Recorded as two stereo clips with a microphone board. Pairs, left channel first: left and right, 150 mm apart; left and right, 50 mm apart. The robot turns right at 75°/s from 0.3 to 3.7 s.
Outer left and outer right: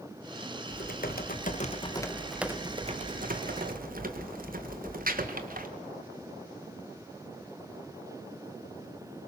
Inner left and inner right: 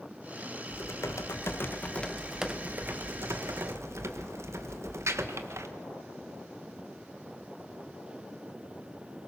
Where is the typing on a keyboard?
60° left, 1.6 m; by 5.7 s 75° right, 1.6 m.